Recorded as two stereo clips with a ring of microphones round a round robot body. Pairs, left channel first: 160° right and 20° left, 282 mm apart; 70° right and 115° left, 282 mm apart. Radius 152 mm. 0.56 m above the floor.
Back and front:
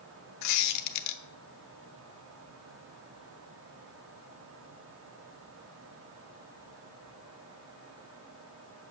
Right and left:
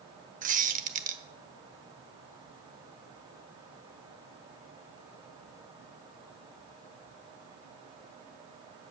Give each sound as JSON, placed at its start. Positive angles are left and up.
{"t": 0.4, "sound": "a squeak", "azimuth_deg": 175, "distance_m": 1.0}